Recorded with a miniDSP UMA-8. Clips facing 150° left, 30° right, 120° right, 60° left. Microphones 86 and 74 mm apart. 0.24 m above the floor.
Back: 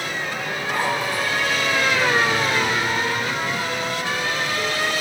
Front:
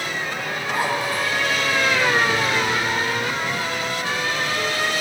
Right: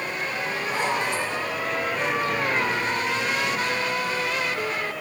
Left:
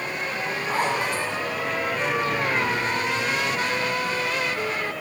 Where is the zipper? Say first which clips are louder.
Even, left 2 dB; 45° left, 1.8 m.